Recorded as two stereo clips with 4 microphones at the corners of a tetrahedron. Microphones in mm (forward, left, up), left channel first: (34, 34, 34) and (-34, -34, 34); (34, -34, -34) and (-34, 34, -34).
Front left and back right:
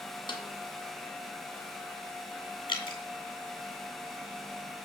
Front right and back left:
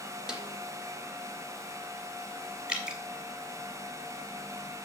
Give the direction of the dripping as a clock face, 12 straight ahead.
10 o'clock.